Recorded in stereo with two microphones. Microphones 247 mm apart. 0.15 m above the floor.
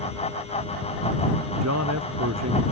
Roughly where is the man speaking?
Right.